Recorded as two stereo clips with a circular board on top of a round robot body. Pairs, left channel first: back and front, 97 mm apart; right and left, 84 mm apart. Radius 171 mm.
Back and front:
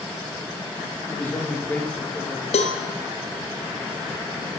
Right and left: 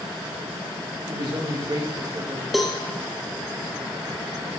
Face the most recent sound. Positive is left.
turn(degrees=180)